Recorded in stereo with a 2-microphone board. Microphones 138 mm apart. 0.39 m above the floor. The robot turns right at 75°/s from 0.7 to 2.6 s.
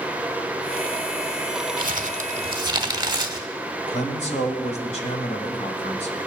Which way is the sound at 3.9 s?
55° left (ahead or behind).